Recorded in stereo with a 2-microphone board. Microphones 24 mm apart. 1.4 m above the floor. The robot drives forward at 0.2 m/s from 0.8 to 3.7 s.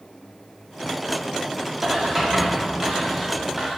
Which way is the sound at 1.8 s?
25° right (ahead or behind).